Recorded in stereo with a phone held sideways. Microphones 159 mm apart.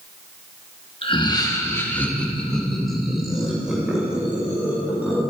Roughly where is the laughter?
Left.